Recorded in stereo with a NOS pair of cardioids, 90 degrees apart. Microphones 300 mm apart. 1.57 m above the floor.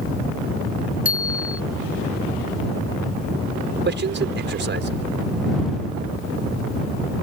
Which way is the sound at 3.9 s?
35° right.